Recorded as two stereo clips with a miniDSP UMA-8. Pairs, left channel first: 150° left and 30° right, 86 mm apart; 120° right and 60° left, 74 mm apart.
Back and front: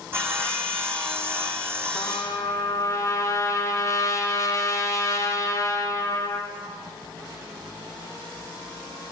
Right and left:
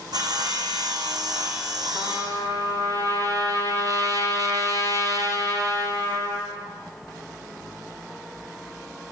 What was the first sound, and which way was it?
Sawing, 35° left.